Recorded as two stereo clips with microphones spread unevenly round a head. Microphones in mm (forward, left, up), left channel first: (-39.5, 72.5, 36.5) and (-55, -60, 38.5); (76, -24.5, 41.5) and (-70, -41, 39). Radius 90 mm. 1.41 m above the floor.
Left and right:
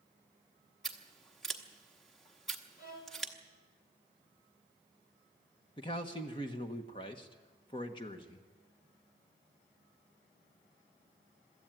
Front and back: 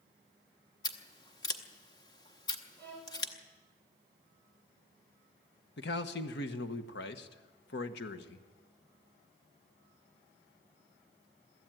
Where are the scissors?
5° right, 0.8 m.